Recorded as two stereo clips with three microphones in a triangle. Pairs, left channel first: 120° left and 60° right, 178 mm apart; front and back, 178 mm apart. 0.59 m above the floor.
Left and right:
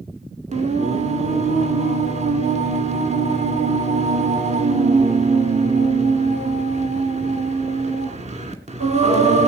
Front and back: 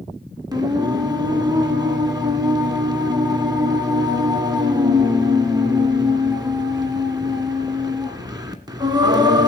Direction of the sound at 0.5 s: 110° right.